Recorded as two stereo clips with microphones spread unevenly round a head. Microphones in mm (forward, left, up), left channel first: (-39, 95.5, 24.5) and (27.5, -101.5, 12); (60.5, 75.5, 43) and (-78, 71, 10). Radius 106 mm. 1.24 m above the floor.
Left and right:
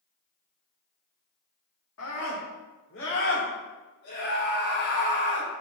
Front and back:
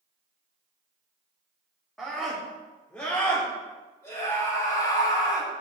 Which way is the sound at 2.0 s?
90° left.